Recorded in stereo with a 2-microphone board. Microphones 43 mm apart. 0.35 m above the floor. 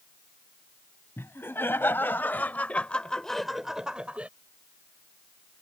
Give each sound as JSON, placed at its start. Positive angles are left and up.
{"t": 1.2, "sound": "laughter", "side_deg": 65}